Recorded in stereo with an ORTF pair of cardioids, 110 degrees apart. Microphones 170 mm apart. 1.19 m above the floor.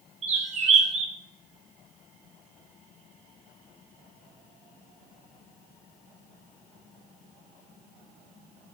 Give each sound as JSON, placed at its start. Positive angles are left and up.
{"t": 0.2, "sound": "a bird", "azimuth_deg": -40, "distance_m": 0.7}